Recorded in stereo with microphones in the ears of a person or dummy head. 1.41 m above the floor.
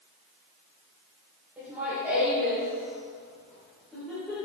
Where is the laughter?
10° right (ahead or behind), 5 m; by 4.4 s 5° left (ahead or behind), 5.5 m.